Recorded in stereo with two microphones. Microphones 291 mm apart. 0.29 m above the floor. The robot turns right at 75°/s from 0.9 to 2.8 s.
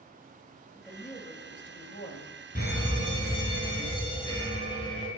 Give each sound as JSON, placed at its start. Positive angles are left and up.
{"t": 0.8, "sound": "a woman speaking", "azimuth_deg": 20, "distance_m": 1.6}
{"t": 2.5, "sound": "a fire alarm", "side_deg": 30, "distance_m": 3.5}